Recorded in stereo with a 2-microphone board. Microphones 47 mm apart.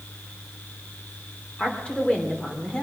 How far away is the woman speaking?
About 3 m.